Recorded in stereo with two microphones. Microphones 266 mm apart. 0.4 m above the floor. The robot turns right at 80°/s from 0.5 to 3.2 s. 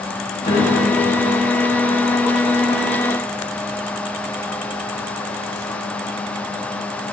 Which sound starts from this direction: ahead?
A piano, at 0.5 s.